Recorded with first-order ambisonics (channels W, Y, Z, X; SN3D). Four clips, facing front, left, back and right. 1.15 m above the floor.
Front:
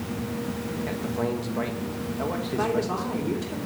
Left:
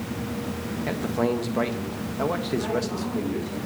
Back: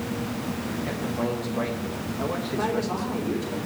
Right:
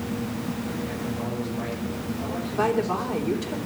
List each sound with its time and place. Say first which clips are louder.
0.9 s a man speaking: left 5 dB, even; 90° left, 1.7 m
2.6 s a woman speaking: right 3 dB, front 1 dB; 80° right, 3 m